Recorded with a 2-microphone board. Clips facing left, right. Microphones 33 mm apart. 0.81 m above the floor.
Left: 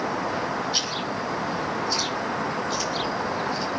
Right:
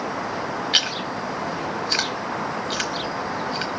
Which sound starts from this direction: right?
Chewing, at 0.7 s.